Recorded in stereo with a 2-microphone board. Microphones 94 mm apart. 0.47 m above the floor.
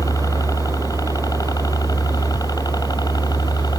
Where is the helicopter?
40° left (ahead or behind); by 3.8 s 45° left (ahead or behind).